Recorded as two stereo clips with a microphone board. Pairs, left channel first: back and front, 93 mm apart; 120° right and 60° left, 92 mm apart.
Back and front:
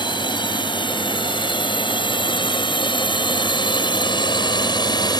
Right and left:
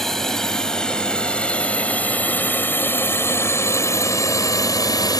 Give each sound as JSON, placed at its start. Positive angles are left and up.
{"t": 0.0, "sound": "a drone", "azimuth_deg": 155}